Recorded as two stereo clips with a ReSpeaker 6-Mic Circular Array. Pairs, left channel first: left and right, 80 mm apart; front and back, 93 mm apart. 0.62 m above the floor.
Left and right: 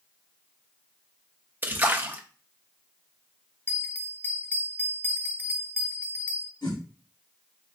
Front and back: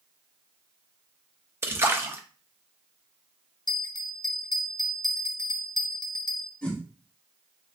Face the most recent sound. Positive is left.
turn(degrees=75)